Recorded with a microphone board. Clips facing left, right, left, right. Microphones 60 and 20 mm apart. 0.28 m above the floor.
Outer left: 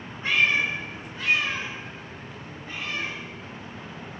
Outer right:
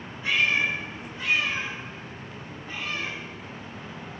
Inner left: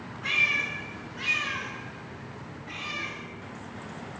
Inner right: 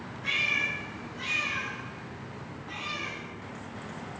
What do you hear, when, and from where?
0.2 s a cat meowing: 45° left (ahead or behind), 1.0 m; by 4.2 s 65° left (ahead or behind), 2.5 m